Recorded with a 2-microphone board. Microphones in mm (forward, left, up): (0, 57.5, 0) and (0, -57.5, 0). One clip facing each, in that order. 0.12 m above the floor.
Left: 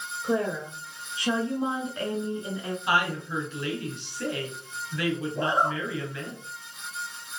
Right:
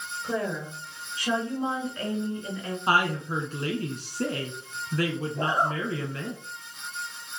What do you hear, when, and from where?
0.2 s a woman speaking: 20° left (ahead or behind), 2 m; by 2.8 s 15° left (ahead or behind), 1.6 m
2.9 s a woman speaking: 40° right (ahead or behind), 1.5 m
5.3 s a zipper: 25° left (ahead or behind), 2.5 m